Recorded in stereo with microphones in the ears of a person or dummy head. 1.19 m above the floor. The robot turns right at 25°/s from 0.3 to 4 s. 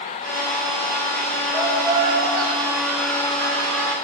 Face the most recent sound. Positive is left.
turn(degrees=-105)